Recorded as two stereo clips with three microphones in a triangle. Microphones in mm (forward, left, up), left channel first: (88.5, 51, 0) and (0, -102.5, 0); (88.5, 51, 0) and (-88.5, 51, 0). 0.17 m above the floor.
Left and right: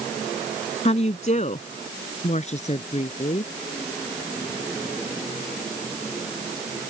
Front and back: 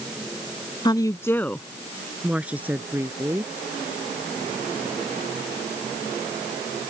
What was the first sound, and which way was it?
A woman speaking, 50° left.